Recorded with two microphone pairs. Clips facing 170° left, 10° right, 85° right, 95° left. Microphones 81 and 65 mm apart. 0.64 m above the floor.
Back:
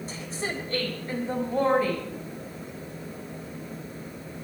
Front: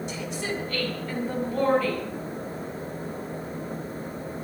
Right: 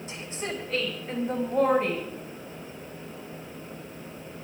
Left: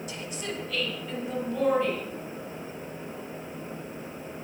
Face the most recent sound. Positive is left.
turn(degrees=-125)